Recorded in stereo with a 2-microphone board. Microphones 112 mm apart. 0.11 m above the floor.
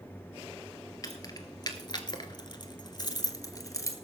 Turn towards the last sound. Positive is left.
turn(degrees=30)  # may be behind; listen again after turning